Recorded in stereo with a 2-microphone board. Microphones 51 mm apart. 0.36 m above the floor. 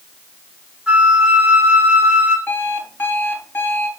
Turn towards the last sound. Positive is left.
turn(degrees=45)  # may be behind; listen again after turning